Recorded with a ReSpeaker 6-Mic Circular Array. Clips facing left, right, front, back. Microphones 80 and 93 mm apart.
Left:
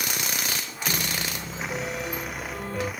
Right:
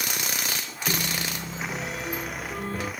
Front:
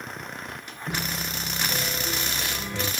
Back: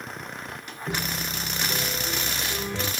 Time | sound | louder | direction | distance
0.9 | a piano | right 1 dB, back 1 dB | 110° right | 4 m